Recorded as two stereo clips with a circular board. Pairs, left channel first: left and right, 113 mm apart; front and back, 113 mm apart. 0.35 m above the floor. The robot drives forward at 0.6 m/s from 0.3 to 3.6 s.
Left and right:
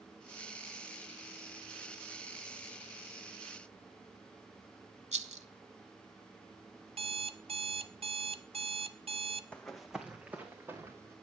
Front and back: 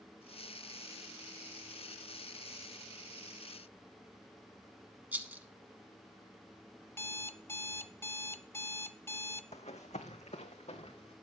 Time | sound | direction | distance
5.1 | a rattle | 105° right | 0.6 m
6.9 | an alarm clock | 65° right | 0.6 m
9.5 | running footsteps | 10° left | 1.3 m